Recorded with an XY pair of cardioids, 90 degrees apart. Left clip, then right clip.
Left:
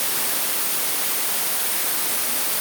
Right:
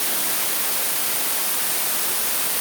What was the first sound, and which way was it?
Only background noise.